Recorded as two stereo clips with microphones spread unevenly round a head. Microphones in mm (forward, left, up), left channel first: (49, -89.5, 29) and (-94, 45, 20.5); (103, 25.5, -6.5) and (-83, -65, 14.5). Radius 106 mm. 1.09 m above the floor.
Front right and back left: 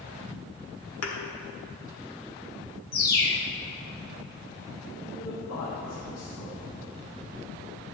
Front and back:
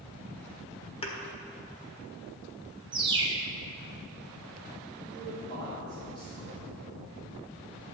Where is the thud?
40° right, 1.6 m.